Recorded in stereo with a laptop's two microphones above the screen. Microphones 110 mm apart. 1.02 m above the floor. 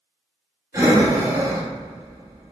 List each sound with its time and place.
0.7 s breathing: 25° right (ahead or behind), 0.9 m